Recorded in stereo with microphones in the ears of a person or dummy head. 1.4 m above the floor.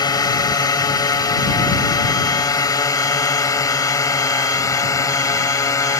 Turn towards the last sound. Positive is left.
turn(degrees=10)  # may be behind; listen again after turning